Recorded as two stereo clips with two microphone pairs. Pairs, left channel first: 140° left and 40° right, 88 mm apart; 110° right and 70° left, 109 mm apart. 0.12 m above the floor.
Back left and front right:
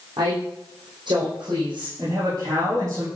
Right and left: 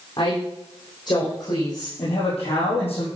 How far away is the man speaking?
About 5.5 m.